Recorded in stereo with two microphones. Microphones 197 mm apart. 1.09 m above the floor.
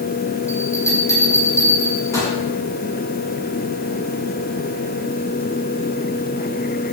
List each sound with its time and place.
0.5 s a bell: 15° left (ahead or behind), 6 m